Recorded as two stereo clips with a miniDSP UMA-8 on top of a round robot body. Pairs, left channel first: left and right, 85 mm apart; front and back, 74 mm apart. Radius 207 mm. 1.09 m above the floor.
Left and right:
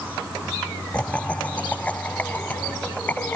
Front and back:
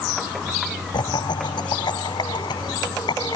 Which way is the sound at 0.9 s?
15° left.